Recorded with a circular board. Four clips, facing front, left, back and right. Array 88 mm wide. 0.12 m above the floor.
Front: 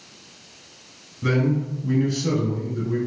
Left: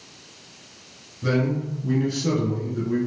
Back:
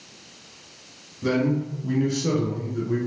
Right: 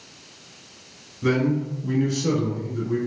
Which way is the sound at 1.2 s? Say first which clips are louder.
Right 2 dB, even; 45° right.